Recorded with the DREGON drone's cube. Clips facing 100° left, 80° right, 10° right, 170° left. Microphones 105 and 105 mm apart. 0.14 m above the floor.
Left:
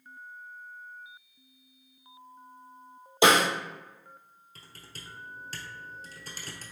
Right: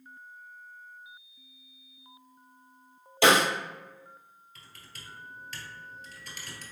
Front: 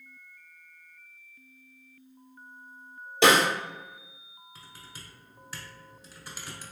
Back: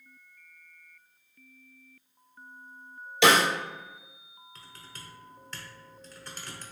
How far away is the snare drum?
About 1.6 m.